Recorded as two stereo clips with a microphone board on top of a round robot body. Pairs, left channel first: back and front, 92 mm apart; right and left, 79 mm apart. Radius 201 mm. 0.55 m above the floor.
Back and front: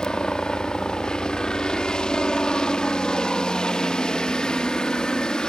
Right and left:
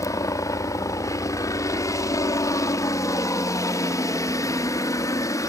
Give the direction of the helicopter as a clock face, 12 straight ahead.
3 o'clock.